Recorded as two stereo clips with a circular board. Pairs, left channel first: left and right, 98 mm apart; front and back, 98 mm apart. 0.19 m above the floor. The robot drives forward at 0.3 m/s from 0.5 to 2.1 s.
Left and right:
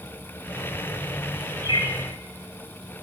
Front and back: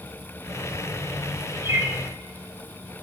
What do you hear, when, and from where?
1.6 s a bird: 120° left, 2 m